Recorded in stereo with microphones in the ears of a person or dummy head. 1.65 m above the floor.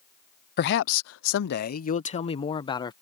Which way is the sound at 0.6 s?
60° left (ahead or behind).